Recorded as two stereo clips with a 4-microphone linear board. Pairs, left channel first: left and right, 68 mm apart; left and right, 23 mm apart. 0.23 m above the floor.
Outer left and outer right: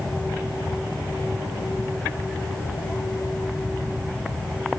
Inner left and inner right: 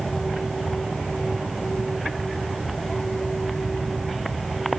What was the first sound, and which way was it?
Only background noise.